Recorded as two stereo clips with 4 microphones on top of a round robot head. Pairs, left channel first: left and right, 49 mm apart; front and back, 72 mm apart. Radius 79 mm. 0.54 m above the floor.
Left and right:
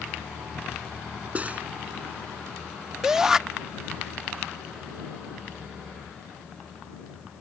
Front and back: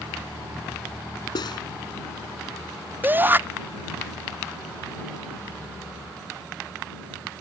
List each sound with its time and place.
1.4 s cutlery clinking: 30° right
3.0 s a shout: 160° right